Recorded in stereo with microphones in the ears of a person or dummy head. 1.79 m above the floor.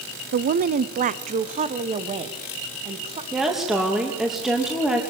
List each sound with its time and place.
0.3 s a woman speaking: 50° right (ahead or behind), 0.8 m; by 3.2 s 30° right (ahead or behind), 2.5 m
3.3 s a woman speaking: centre (ahead or behind), 3 m